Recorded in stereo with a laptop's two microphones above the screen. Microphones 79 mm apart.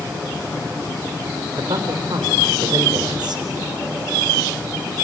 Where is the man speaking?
70° right (ahead or behind), 3.5 m.